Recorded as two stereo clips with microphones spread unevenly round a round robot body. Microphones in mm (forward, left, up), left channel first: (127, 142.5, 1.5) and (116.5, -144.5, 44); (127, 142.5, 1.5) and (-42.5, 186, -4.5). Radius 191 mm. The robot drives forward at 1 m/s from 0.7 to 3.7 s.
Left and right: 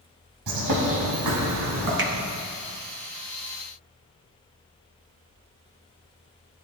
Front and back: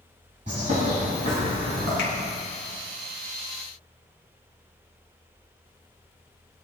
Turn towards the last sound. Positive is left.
turn(degrees=-115)